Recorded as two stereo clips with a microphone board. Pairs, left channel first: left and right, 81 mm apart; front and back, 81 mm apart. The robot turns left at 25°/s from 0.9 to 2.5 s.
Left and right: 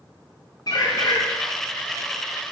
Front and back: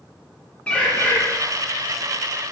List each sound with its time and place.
0.7 s a bird: 70° left, 0.7 m; by 1.2 s 65° left, 0.7 m